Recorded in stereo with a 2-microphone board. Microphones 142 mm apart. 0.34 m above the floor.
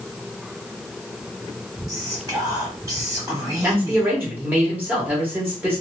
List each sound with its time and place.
1.9 s whispering: 25° right (ahead or behind), 1.9 m
3.6 s a man speaking: 15° right (ahead or behind), 1.2 m